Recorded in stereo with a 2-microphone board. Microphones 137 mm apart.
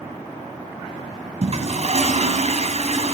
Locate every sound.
1.4 s a toilet flushing: 55° right (ahead or behind), 2 m